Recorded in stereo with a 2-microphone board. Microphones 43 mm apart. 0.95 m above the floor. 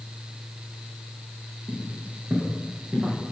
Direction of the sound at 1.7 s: 60° right (ahead or behind).